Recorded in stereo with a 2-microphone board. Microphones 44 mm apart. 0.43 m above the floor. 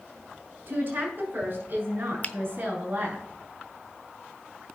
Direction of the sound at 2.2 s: 35° left (ahead or behind).